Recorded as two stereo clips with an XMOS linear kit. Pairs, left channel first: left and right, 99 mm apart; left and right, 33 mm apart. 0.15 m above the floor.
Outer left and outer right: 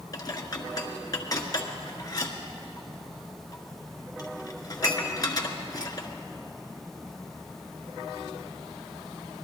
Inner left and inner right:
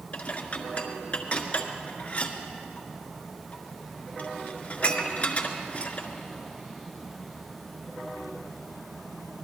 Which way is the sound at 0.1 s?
40° left (ahead or behind).